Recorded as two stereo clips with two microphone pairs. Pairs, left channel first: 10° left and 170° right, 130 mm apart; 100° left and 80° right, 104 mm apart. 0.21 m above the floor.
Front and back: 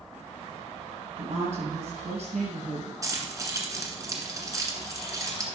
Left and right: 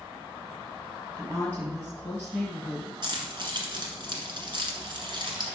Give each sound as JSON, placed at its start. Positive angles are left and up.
{"t": 1.2, "sound": "a woman speaking", "azimuth_deg": 175, "distance_m": 5.0}
{"t": 3.0, "sound": "keys jangling", "azimuth_deg": -110, "distance_m": 1.8}